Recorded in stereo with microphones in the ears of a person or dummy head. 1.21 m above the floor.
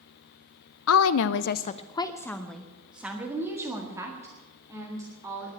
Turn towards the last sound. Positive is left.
turn(degrees=-20)  # may be behind; listen again after turning